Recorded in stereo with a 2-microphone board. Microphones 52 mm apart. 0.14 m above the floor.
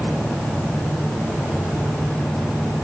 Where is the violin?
No violin in this recording.